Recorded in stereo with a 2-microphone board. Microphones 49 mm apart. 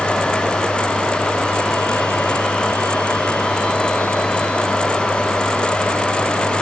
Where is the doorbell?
No doorbell in this recording.